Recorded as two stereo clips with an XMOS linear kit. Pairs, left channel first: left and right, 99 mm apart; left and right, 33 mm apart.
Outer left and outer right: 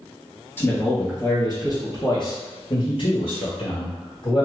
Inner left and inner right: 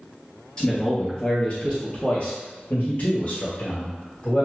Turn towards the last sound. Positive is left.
turn(degrees=65)  # may be behind; listen again after turning